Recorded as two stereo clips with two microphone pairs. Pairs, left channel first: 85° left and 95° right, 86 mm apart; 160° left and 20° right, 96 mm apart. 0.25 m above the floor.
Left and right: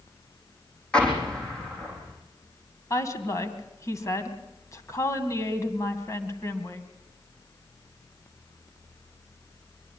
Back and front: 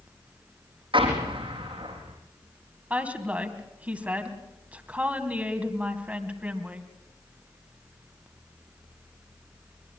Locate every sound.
0.9 s an explosion: 5° left, 4.5 m
2.9 s a woman speaking: 50° left, 2.5 m